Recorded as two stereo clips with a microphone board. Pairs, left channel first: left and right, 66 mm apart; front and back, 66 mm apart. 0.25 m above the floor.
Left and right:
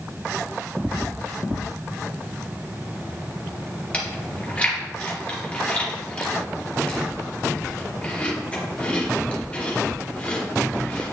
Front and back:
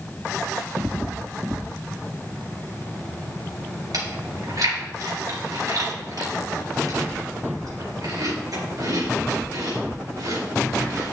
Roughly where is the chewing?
Behind.